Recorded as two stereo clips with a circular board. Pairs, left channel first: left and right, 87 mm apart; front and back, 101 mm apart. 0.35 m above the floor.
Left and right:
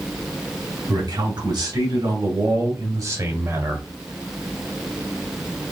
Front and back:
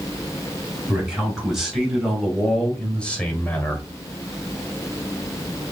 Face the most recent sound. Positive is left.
turn(degrees=-50)